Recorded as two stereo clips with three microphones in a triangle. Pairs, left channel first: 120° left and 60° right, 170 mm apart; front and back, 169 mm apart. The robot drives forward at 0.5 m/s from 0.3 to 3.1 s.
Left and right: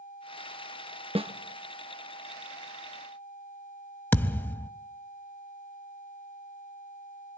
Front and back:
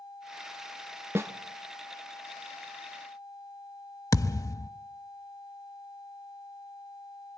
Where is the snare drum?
105° right, 0.9 m; by 1.3 s 110° right, 0.9 m.